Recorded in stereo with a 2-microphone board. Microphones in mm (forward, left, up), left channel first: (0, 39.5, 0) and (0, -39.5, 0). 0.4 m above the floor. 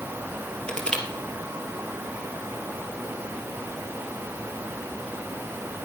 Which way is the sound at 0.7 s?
10° left (ahead or behind).